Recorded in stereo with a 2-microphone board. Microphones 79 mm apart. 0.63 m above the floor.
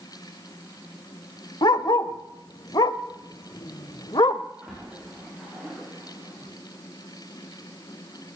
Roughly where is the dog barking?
Left.